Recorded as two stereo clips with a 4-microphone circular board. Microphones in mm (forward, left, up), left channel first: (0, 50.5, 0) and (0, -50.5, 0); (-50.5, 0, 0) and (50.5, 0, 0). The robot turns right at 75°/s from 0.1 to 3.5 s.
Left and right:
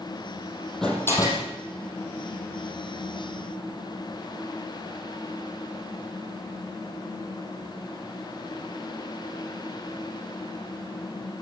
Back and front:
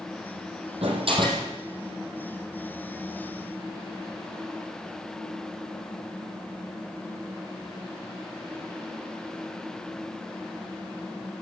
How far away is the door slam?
About 4.5 m.